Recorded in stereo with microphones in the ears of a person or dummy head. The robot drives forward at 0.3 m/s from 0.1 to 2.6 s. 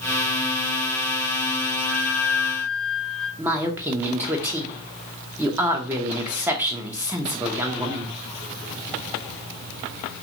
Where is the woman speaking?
15° right (ahead or behind), 0.6 m.